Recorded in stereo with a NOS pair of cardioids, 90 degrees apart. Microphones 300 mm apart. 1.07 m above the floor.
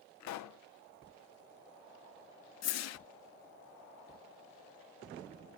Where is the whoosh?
60° left, 0.5 m.